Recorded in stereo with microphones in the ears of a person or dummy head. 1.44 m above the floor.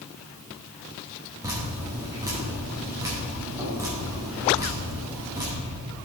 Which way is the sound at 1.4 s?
10° right (ahead or behind).